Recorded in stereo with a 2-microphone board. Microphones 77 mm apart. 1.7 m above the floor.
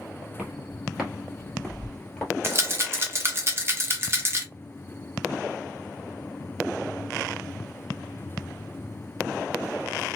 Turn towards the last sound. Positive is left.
turn(degrees=-35)  # may be behind; listen again after turning